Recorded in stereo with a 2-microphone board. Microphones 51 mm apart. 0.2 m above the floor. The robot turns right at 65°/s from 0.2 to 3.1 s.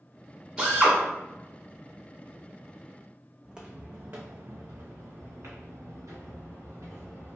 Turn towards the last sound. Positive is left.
turn(degrees=-80)